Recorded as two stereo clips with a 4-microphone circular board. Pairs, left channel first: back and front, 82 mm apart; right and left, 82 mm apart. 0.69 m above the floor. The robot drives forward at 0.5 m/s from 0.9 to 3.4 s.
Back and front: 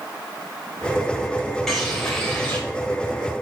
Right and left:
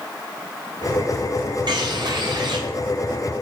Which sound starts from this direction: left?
A bird, at 1.7 s.